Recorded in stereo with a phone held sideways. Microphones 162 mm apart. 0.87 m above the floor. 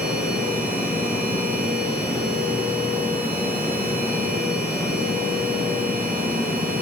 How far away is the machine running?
About 1.8 m.